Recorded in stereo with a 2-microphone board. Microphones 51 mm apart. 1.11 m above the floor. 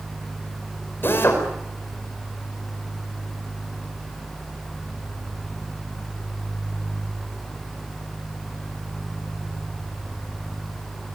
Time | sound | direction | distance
1.0 | a drill | 45° left (ahead or behind) | 5 m